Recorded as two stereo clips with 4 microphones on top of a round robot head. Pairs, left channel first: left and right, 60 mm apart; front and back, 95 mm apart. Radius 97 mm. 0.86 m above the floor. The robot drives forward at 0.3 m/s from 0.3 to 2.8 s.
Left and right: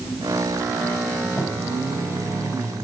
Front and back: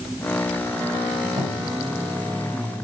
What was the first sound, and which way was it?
A cupboard door, 160° left.